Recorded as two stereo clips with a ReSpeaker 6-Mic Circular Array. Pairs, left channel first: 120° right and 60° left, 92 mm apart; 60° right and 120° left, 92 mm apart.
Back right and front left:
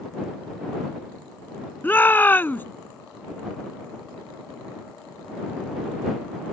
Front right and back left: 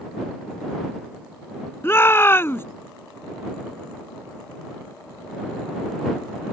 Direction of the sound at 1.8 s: 80° right.